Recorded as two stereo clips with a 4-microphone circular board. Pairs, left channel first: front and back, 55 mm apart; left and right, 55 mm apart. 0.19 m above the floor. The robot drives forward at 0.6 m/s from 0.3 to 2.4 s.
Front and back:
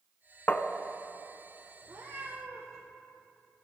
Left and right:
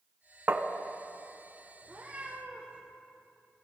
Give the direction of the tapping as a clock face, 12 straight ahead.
1 o'clock.